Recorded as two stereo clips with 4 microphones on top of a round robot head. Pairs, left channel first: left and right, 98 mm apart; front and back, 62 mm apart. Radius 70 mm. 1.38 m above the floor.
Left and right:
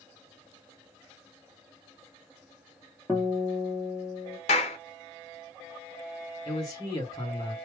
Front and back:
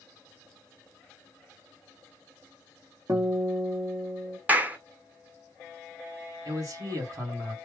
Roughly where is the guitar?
Behind.